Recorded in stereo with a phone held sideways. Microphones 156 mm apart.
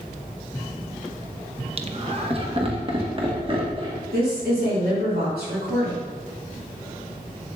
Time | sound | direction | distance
1.8 | laughter | 40° right (ahead or behind) | 0.7 m
4.1 | a woman speaking | 80° right | 2 m